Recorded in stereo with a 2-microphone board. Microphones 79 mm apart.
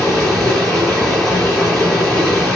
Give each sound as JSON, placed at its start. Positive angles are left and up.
{"t": 0.0, "sound": "running water", "side_deg": 0, "distance_m": 9.5}